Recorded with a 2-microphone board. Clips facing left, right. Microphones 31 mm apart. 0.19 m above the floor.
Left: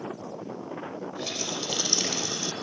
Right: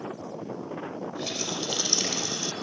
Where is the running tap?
Centre (ahead or behind), 5 m.